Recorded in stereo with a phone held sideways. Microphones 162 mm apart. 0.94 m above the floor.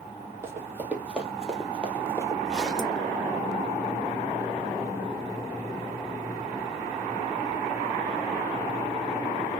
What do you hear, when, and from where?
0.4 s running footsteps: 15° right (ahead or behind), 1.3 m; by 2.4 s 20° left (ahead or behind), 1.0 m
2.5 s a zipper: centre (ahead or behind), 1.1 m